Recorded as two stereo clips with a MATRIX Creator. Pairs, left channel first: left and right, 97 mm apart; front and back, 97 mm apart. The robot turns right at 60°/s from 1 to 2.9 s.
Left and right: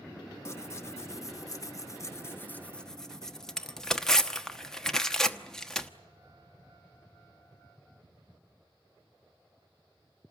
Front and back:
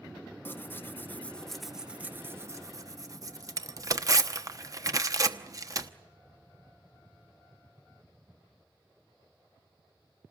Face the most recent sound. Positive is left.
turn(degrees=170)